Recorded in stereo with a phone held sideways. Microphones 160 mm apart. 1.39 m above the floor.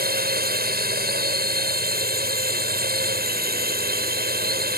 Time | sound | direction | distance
0.0 | a drone | 75° right (ahead or behind) | ?